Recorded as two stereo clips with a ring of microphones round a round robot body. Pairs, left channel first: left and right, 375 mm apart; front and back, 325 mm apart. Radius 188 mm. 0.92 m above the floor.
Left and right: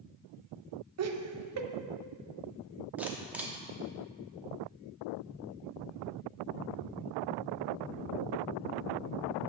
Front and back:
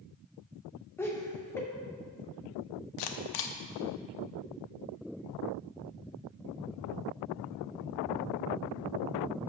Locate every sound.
1.0 s laughter: 80° right, 0.7 m
3.0 s a camera shutter: 5° right, 0.7 m